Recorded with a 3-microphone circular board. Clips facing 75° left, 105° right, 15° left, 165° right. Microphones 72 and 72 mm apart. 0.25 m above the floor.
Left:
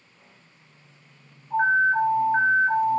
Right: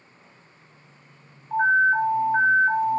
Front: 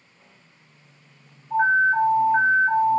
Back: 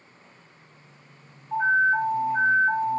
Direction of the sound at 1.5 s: 5° left.